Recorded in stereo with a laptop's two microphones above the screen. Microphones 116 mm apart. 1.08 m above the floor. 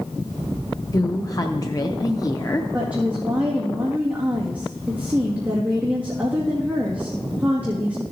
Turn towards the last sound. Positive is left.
turn(degrees=-15)  # may be behind; listen again after turning